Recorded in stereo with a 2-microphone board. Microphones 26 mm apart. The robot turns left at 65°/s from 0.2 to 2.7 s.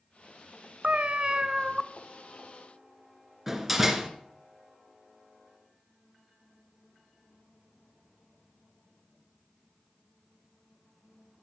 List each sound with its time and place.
0.8 s a cat meowing: 100° right, 0.5 m; by 1.8 s 160° right, 0.5 m
3.5 s a door slam: 15° right (ahead or behind), 1.5 m